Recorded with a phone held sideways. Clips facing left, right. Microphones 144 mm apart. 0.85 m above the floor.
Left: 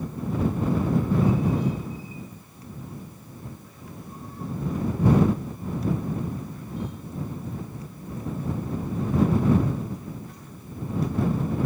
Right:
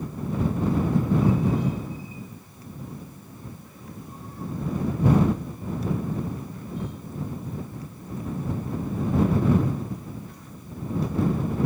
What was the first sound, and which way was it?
Only background noise.